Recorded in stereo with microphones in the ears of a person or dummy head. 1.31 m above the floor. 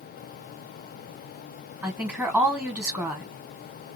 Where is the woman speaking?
10° right (ahead or behind), 1.5 m.